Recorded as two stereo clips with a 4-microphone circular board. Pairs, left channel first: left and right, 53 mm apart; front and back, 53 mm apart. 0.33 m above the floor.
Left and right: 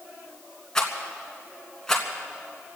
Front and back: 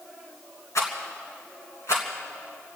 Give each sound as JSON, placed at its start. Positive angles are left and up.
{"t": 0.8, "sound": "a rattle", "azimuth_deg": 10, "distance_m": 3.0}